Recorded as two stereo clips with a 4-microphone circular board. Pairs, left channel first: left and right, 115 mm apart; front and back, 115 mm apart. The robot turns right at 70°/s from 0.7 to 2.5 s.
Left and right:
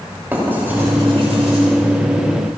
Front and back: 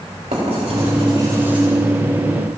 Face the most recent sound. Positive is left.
turn(degrees=-35)